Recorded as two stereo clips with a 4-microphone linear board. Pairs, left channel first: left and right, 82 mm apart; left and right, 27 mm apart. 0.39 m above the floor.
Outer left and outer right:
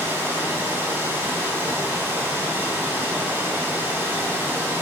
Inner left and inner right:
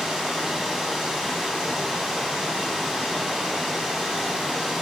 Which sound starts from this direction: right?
Running water, at 0.0 s.